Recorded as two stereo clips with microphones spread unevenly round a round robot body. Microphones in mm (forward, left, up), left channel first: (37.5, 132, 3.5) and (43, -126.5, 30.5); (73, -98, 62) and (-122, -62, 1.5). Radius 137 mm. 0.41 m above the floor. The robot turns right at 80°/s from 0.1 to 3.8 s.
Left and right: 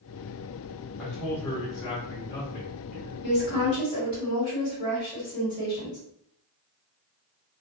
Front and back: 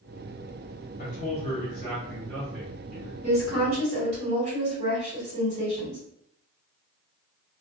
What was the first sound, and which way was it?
A man speaking, 10° left.